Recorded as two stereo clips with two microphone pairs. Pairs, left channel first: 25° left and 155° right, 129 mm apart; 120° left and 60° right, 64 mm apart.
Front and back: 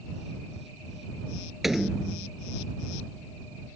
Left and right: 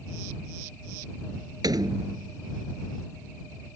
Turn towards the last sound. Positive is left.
turn(degrees=-65)